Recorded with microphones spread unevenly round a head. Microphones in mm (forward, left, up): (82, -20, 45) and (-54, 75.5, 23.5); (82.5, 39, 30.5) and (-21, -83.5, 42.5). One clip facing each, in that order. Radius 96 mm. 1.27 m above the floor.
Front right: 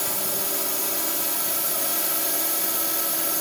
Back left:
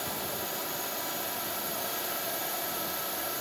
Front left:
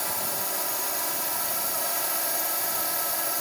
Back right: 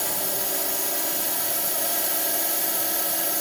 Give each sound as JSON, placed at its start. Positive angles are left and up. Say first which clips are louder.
{"t": 0.0, "sound": "a drone", "louder": "front right 4 dB, back right 3 dB", "azimuth_deg": -75}